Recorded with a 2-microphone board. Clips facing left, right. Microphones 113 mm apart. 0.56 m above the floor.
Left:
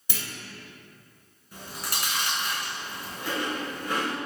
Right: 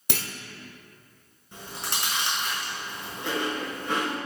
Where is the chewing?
25° right (ahead or behind), 3.5 m.